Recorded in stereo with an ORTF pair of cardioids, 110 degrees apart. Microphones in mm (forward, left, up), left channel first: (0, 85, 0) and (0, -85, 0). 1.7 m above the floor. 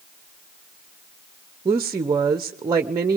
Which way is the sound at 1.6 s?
25° right.